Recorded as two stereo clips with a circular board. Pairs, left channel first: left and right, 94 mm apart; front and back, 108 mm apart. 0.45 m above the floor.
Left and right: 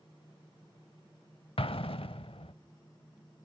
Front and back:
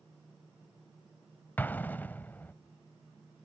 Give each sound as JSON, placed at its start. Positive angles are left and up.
{"t": 1.6, "sound": "an explosion", "azimuth_deg": 75, "distance_m": 0.5}